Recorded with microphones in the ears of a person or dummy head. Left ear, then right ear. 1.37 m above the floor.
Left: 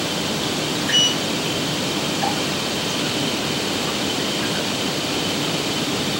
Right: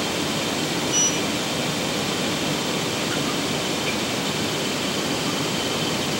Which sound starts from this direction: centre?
A sliding door, at 0.9 s.